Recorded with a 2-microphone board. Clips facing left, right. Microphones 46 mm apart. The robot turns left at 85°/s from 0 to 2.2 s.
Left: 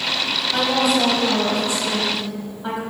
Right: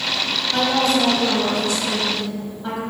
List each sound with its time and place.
0.5 s a woman speaking: centre (ahead or behind), 1.5 m; by 2.8 s 15° left (ahead or behind), 1.5 m